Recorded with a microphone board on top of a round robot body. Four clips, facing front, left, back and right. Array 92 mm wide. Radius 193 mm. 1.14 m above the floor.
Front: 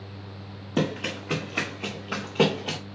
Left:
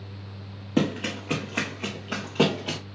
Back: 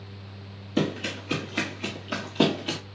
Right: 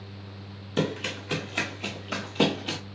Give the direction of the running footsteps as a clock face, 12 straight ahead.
10 o'clock.